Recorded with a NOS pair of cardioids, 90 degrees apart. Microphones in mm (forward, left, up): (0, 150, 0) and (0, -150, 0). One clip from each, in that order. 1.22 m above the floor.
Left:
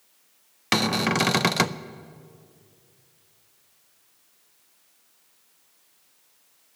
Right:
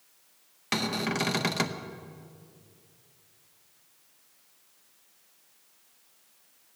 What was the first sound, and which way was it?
A cupboard door, 30° left.